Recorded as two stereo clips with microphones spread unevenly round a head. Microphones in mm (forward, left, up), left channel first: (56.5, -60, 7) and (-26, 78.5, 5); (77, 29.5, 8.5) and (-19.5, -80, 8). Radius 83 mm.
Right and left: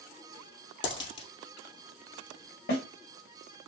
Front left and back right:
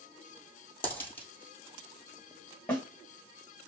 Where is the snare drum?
30° right, 2.5 m.